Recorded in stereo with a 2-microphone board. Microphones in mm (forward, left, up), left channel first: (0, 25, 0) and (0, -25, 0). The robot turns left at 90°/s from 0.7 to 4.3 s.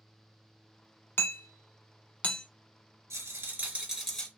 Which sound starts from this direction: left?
Hammering, at 1.2 s.